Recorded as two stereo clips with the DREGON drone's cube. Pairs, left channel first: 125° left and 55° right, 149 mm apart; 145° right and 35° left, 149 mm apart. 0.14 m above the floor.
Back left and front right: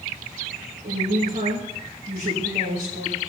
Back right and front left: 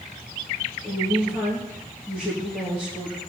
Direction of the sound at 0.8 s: 65° right.